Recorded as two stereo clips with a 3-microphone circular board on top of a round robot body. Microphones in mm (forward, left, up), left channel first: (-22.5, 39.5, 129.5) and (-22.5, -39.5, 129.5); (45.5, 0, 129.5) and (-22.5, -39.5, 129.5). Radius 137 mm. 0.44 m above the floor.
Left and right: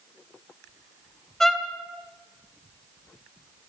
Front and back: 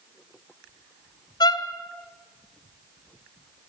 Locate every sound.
1.4 s a violin: 5° left, 2.5 m